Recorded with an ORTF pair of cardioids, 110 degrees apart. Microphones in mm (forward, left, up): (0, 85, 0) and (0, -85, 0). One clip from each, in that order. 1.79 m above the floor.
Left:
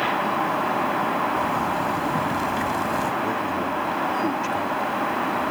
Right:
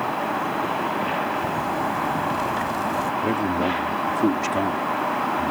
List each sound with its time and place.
1.4 s a zipper: 5° left
3.2 s a man speaking: 45° right